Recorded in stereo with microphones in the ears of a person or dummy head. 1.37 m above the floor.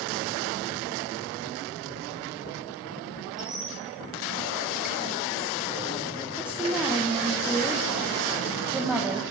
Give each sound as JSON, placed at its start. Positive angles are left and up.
{"t": 3.4, "sound": "a squeak", "side_deg": 0, "distance_m": 2.5}
{"t": 6.4, "sound": "a woman speaking", "side_deg": -10, "distance_m": 1.3}